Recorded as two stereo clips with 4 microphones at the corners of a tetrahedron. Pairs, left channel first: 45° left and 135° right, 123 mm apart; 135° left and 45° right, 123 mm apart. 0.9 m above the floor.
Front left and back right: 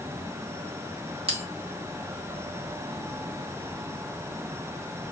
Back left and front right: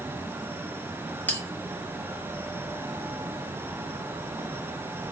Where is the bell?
155° right, 0.8 m.